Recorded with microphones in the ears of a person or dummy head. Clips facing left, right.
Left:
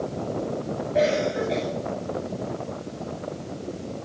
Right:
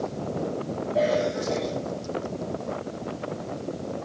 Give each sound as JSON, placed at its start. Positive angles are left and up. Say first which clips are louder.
{"t": 0.9, "sound": "a cough", "louder": "left 2 dB", "side_deg": 25, "distance_m": 10.0}